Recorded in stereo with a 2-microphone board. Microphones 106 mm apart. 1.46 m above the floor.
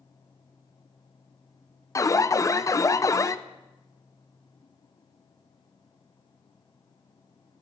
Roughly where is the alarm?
Left.